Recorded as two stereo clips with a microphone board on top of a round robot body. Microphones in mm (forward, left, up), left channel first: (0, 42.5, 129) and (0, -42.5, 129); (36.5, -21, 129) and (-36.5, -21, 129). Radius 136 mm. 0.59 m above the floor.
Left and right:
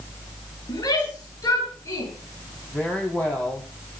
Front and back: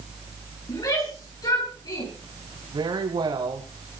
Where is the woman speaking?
165° left, 4.5 m.